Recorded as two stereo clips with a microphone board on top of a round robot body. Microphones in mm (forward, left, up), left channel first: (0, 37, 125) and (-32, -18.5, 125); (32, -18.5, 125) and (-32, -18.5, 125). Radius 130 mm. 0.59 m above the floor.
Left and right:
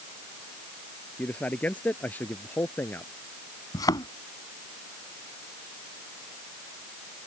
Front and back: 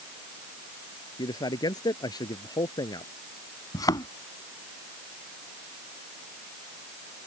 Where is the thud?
30° left.